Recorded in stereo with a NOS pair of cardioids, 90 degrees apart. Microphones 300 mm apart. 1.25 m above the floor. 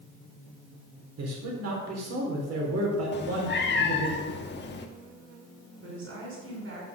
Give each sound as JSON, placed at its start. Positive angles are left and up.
{"t": 1.2, "sound": "a man speaking", "azimuth_deg": -55, "distance_m": 4.0}
{"t": 3.1, "sound": "a cat meowing", "azimuth_deg": 40, "distance_m": 1.4}
{"t": 5.8, "sound": "a woman speaking", "azimuth_deg": -45, "distance_m": 5.5}